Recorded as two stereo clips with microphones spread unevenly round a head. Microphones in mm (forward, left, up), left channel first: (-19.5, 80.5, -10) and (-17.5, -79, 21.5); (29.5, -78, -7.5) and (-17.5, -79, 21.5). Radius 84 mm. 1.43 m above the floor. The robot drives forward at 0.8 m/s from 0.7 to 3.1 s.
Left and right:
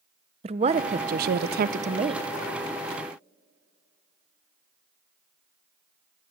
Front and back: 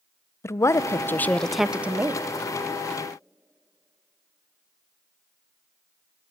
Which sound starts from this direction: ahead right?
A woman speaking, at 0.4 s.